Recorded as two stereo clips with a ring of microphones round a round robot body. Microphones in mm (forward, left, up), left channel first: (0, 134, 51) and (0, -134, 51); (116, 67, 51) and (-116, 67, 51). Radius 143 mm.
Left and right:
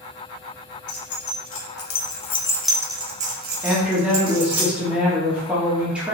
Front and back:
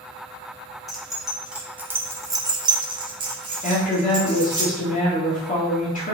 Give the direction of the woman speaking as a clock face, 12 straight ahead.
12 o'clock.